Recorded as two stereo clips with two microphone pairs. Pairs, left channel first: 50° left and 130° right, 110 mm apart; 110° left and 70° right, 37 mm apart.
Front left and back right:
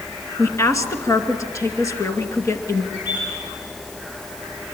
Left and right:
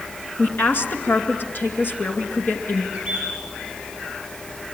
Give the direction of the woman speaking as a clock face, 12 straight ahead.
9 o'clock.